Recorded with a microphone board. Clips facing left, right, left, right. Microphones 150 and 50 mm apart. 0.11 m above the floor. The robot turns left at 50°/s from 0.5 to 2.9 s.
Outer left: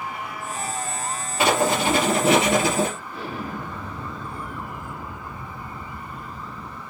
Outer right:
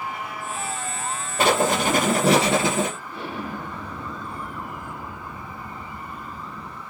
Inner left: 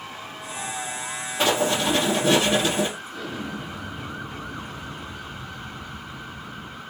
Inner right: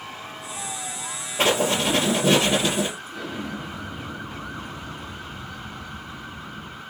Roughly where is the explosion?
Right.